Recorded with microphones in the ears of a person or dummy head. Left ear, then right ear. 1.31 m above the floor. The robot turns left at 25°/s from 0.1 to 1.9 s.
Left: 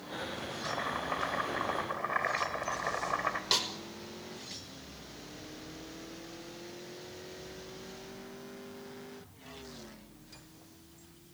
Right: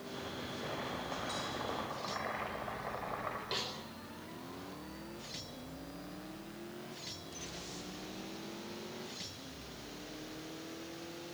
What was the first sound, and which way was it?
Chopping, 135° left.